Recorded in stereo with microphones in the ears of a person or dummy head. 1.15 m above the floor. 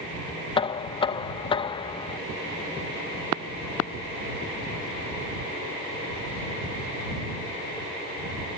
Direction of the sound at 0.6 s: 25° left (ahead or behind).